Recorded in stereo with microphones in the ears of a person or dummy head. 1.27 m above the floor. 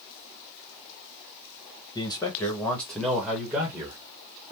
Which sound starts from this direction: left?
A man speaking, at 1.9 s.